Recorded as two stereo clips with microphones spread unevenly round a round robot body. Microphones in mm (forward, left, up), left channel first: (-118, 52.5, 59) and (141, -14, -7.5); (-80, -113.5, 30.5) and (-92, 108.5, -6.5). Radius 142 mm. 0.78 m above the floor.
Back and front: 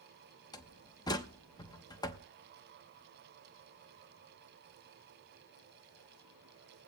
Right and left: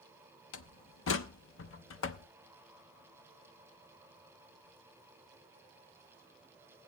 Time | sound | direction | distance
0.5 | a door slam | 110° right | 0.9 m